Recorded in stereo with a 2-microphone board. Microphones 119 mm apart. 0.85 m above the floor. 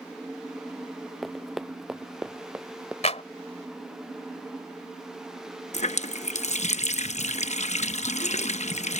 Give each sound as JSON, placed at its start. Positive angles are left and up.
{"t": 1.2, "sound": "running footsteps", "side_deg": 0}
{"t": 3.0, "sound": "a clap", "side_deg": 65}
{"t": 5.7, "sound": "a running tap", "side_deg": 70}